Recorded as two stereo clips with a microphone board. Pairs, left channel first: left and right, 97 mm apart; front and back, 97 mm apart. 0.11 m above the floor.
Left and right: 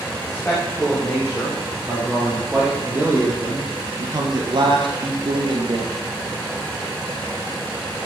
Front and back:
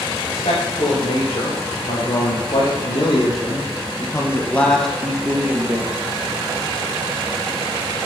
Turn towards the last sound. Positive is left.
turn(degrees=-110)